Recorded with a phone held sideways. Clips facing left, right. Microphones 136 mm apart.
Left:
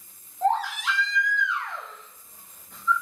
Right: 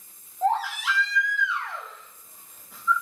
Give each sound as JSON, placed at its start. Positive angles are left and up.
{"t": 0.4, "sound": "a baby crying", "side_deg": -5, "distance_m": 0.8}